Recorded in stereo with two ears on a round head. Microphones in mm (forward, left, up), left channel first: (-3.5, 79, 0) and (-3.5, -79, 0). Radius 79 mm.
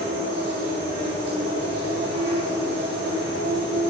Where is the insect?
60° right (ahead or behind), 2.0 m.